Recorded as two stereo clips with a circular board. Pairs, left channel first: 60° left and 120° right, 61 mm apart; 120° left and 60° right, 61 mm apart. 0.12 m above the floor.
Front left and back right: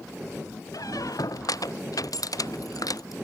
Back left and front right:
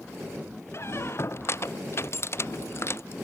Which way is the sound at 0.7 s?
75° left.